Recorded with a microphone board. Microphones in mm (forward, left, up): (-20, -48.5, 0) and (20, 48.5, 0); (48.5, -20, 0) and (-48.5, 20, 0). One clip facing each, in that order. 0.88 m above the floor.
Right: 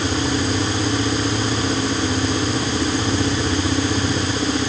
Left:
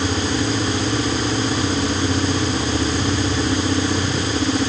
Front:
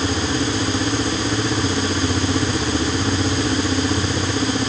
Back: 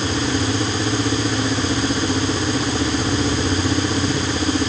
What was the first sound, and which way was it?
Only background noise.